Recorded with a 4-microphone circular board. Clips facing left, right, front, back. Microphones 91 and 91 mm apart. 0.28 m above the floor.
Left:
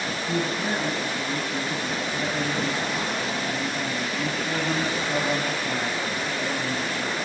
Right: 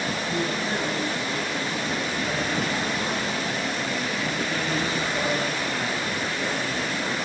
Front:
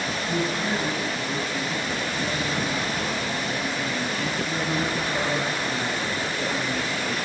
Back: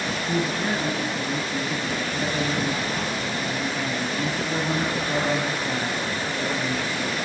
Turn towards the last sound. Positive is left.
turn(degrees=130)